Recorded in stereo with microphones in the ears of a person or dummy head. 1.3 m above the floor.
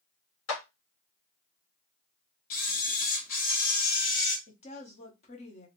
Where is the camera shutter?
55° left (ahead or behind), 1.4 m.